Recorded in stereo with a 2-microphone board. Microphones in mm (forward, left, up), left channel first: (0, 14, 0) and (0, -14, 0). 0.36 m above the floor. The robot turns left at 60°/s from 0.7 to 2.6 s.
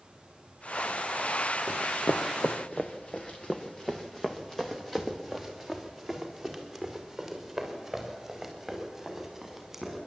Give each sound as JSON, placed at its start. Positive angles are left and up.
{"t": 1.7, "sound": "running footsteps", "side_deg": 55, "distance_m": 1.2}